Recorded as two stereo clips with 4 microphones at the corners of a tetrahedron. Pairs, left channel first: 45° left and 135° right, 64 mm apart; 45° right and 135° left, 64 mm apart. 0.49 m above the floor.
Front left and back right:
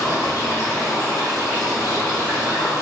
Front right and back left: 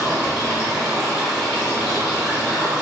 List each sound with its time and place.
0.0 s running water: 60° left, 1.7 m